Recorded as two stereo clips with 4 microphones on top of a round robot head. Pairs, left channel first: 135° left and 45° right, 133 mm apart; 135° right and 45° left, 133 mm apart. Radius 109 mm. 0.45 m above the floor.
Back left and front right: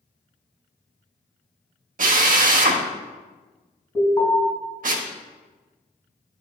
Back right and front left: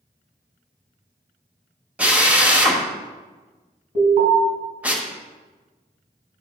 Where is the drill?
35° right, 1.3 m.